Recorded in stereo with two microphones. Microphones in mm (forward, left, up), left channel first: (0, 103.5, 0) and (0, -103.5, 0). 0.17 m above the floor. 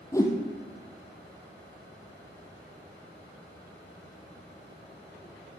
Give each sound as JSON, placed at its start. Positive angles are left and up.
{"t": 0.1, "sound": "a whoosh", "side_deg": 15, "distance_m": 1.6}